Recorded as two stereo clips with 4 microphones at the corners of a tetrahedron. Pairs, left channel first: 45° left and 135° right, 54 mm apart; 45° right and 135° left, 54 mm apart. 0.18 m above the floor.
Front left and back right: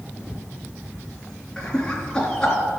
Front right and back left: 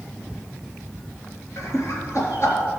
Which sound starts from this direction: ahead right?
Laughter, at 1.6 s.